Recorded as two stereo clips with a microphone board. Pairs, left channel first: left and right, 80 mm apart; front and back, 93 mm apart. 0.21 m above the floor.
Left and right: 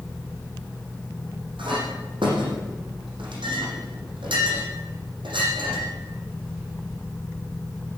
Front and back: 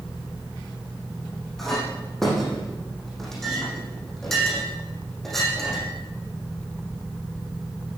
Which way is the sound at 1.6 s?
85° right.